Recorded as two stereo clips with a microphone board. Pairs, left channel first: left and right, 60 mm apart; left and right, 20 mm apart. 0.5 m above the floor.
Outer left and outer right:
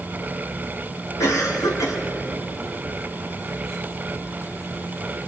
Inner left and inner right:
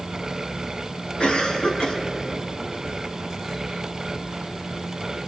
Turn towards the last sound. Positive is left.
turn(degrees=70)  # may be behind; listen again after turning